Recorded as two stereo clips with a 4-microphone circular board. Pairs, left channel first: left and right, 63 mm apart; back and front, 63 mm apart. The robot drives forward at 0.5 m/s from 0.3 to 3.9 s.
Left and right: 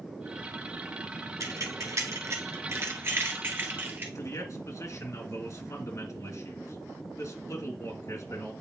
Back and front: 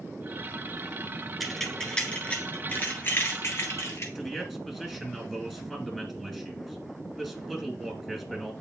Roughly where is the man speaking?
Left.